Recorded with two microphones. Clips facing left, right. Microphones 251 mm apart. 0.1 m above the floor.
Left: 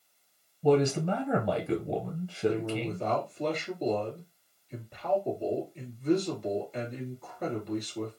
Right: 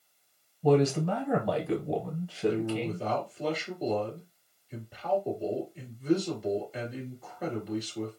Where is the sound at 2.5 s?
5° right (ahead or behind), 1.9 m.